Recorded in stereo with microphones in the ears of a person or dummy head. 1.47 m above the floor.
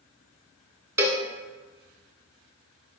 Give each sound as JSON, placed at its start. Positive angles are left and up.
{"t": 1.0, "sound": "a cowbell", "side_deg": -15, "distance_m": 0.8}